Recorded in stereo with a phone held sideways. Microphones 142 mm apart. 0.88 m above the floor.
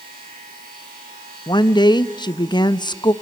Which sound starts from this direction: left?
A woman speaking, at 1.5 s.